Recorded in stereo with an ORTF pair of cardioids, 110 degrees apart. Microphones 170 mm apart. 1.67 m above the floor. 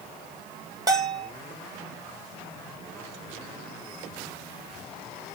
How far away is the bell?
About 0.8 m.